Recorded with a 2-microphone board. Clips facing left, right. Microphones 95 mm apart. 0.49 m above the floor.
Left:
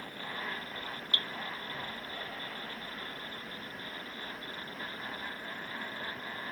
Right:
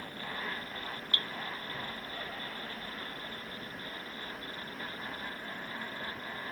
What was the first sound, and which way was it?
Dripping, 30° left (ahead or behind).